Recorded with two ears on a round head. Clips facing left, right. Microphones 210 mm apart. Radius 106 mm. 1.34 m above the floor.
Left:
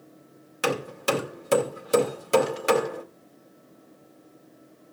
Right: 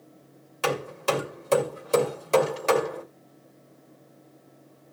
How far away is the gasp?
No gasp in this recording.